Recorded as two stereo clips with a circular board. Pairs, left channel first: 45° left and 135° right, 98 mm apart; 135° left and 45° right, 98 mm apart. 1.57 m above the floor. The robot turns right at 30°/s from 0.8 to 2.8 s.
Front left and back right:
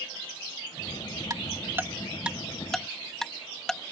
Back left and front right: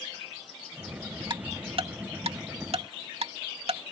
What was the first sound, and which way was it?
Ticking, 85° right.